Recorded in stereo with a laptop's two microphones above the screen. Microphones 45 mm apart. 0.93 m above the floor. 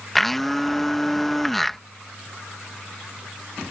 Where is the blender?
5° left (ahead or behind).